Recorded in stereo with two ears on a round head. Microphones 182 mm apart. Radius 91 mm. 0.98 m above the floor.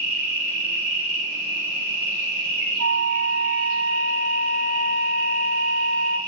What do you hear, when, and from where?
0.0 s an insect: 40° right (ahead or behind), 1.4 m
2.8 s a flute: 60° right (ahead or behind), 0.5 m